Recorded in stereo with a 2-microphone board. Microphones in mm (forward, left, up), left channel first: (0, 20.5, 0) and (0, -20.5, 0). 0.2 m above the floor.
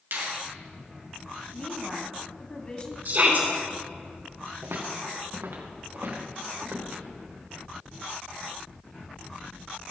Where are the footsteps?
75° right (ahead or behind), 2.5 m; by 7.0 s 65° right (ahead or behind), 4 m.